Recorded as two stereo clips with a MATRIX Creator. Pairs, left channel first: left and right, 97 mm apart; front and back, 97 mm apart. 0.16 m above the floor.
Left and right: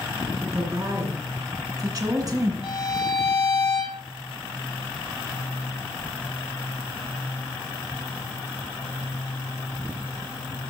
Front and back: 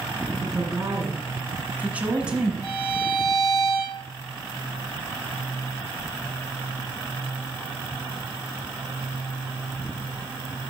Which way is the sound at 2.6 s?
55° left.